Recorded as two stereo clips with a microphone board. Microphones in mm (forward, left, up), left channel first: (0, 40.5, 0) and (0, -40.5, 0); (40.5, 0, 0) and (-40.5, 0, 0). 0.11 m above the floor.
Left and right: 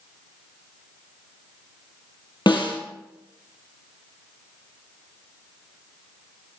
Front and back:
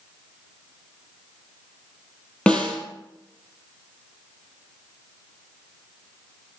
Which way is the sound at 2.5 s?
75° left.